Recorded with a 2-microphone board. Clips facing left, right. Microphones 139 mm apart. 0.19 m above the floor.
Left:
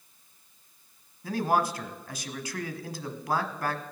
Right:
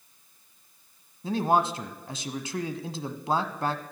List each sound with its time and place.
1.2 s a man speaking: 25° right (ahead or behind), 1.1 m